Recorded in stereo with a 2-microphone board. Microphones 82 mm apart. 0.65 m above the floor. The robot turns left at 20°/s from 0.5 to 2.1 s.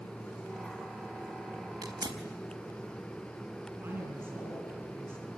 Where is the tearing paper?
60° right (ahead or behind), 4 m; by 2.2 s 65° right (ahead or behind), 4 m.